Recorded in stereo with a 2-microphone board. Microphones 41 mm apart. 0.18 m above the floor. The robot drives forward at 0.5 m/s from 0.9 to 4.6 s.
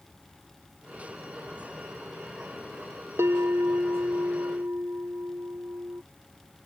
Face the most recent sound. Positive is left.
turn(degrees=-75)  # may be behind; listen again after turning